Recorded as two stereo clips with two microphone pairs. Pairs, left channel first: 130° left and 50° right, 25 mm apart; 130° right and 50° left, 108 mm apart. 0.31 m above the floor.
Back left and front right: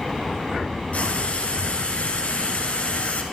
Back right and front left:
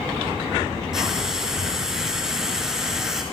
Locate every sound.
0.9 s frying: 135° left, 4.5 m